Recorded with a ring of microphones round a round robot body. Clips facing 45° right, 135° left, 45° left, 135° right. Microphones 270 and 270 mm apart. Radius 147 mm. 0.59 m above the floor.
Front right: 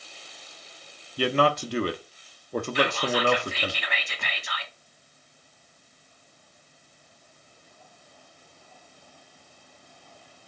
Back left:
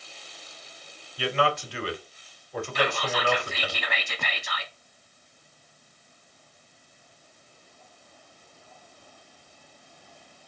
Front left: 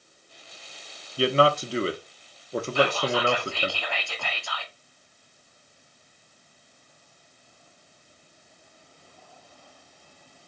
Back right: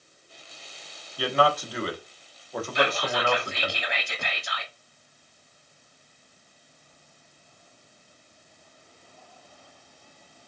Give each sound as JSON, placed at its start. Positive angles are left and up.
{"t": 1.2, "sound": "a man speaking", "azimuth_deg": -10, "distance_m": 0.9}
{"t": 2.8, "sound": "whispering", "azimuth_deg": 160, "distance_m": 1.4}